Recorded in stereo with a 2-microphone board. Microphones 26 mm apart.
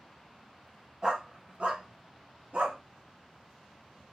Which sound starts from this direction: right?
A dog barking, at 1.0 s.